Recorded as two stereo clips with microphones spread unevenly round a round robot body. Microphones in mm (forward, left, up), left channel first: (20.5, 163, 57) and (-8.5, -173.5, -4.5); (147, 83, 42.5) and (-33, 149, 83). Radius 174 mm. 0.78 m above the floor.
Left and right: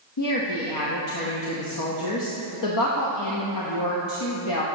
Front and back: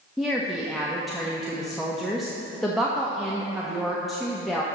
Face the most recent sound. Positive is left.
turn(degrees=60)